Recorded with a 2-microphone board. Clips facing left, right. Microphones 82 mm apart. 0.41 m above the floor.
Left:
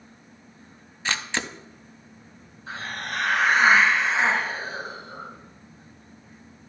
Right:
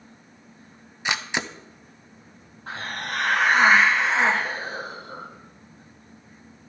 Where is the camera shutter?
15° right (ahead or behind), 0.5 m.